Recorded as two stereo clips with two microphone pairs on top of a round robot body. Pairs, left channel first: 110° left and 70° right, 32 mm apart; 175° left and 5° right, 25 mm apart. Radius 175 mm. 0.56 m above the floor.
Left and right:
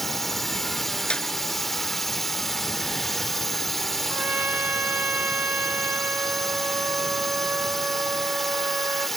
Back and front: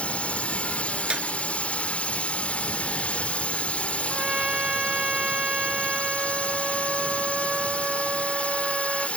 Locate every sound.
0.0 s a drone: 170° right
1.1 s a clap: 45° left
4.1 s a trumpet: 55° right